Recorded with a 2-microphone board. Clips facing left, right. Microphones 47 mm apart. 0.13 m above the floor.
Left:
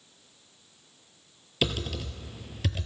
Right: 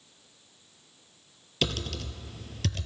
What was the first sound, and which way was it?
Typing on a keyboard, 10° left (ahead or behind).